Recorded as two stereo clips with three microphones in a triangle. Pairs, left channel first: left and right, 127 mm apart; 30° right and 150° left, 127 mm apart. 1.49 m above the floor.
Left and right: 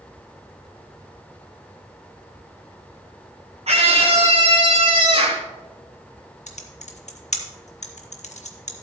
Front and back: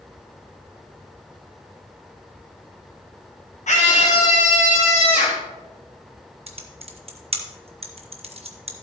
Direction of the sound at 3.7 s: 55° right.